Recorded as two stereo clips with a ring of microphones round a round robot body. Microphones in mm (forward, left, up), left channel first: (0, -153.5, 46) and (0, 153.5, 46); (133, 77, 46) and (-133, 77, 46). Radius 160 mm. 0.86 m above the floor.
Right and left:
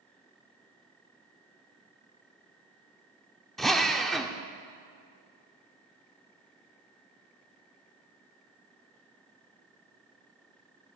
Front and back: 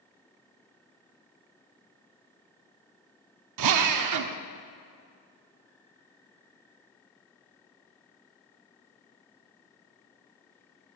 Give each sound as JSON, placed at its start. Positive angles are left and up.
{"t": 3.6, "sound": "a drill", "azimuth_deg": 180, "distance_m": 0.7}